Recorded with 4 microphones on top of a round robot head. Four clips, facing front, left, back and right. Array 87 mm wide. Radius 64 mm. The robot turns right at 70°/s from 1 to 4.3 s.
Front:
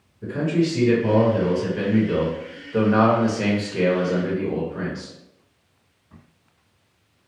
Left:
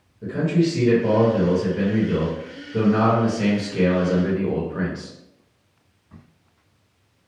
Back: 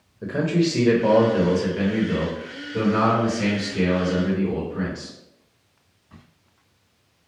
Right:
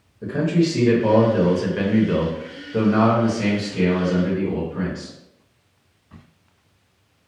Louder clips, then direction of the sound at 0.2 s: Right 1 dB, even; 155° right.